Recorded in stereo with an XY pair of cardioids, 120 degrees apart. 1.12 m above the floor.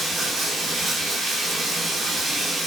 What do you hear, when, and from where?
0.0 s running water: 15° right, 1.9 m